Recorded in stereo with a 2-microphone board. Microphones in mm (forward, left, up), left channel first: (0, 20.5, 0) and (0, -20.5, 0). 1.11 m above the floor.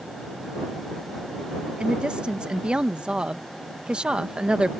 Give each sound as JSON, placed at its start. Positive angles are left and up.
{"t": 1.8, "sound": "a woman speaking", "side_deg": -25}